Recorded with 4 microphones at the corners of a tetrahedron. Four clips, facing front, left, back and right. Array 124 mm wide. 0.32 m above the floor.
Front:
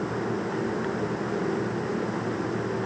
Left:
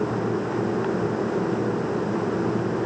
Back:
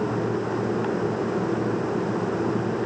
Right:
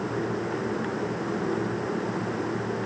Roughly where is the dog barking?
No dog barking in this recording.